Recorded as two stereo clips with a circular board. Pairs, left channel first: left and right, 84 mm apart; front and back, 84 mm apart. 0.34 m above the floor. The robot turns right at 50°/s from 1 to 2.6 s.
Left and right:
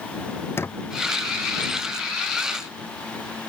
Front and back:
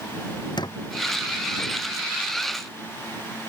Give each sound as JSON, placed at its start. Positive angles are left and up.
{"t": 0.6, "sound": "a squeak", "azimuth_deg": 30}